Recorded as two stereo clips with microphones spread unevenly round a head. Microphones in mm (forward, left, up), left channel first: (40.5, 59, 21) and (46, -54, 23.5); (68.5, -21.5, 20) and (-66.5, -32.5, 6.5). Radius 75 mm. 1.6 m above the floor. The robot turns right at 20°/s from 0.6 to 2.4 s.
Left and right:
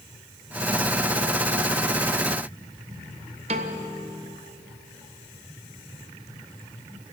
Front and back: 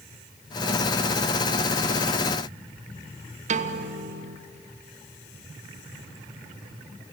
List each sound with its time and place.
3.5 s a piano: 140° right, 1.2 m